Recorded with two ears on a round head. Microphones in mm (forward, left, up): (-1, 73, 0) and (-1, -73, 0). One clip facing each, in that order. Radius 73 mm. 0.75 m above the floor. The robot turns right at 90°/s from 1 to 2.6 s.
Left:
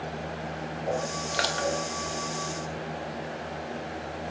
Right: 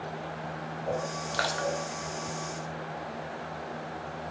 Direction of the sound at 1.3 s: 20° left (ahead or behind).